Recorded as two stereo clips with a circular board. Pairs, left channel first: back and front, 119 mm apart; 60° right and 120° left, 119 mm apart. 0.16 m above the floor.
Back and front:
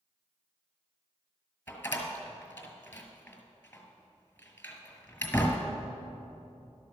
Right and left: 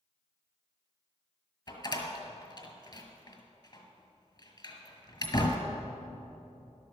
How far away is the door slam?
About 1.6 m.